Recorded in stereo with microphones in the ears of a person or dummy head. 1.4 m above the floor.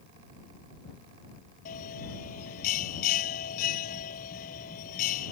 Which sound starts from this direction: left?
A bell, at 1.6 s.